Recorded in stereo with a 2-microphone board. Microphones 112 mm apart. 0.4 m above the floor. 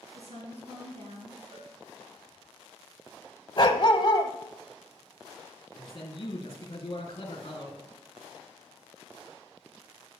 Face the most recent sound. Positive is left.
turn(degrees=50)  # may be behind; listen again after turning